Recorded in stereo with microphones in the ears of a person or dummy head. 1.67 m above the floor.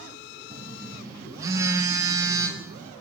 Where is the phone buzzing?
15° right (ahead or behind), 1.2 m.